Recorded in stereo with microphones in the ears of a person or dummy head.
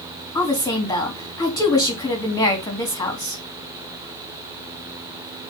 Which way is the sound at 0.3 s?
20° left (ahead or behind).